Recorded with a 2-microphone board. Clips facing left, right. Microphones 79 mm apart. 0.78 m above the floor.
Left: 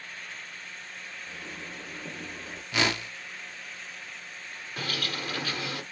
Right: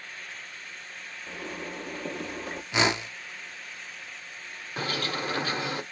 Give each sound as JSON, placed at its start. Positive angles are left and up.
{"t": 1.3, "sound": "a zipper", "side_deg": -60, "distance_m": 1.3}
{"t": 2.7, "sound": "a whoosh", "side_deg": -20, "distance_m": 0.5}
{"t": 4.8, "sound": "a bird", "side_deg": -30, "distance_m": 0.8}